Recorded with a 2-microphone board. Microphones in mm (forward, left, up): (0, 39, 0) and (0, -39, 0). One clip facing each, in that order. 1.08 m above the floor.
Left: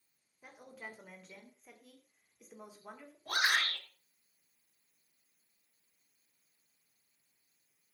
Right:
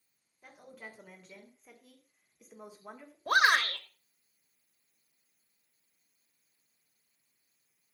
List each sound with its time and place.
0.4 s a woman speaking: 10° left (ahead or behind), 3.5 m; by 3.2 s 10° right (ahead or behind), 2 m
3.3 s a shout: 60° right (ahead or behind), 1.6 m